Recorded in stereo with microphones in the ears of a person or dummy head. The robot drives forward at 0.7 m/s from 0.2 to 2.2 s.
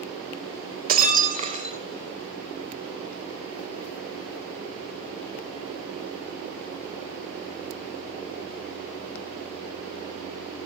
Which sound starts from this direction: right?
Breaking glass, at 0.9 s.